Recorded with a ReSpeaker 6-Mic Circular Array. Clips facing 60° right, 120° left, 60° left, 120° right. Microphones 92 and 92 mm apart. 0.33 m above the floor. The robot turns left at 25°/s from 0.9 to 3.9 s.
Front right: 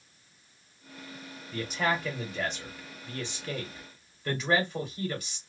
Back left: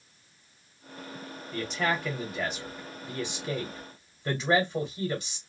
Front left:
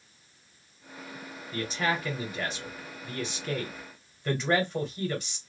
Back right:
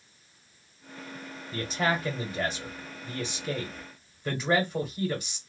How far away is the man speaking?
About 1.3 m.